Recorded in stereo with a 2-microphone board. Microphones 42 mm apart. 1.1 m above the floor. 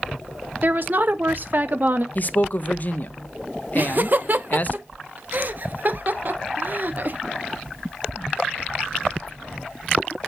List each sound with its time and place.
0.6 s a woman speaking: 50° right (ahead or behind), 1.0 m
2.1 s a man speaking: 40° left (ahead or behind), 0.8 m
3.8 s laughter: 50° right (ahead or behind), 1.0 m